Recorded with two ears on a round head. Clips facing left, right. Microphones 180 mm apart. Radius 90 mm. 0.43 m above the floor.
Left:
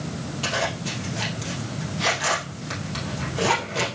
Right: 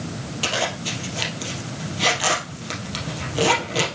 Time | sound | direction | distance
0.4 | a zipper | 50° right (ahead or behind) | 2.5 m